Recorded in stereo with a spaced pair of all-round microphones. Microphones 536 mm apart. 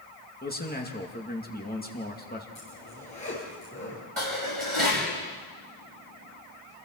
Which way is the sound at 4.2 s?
65° right (ahead or behind).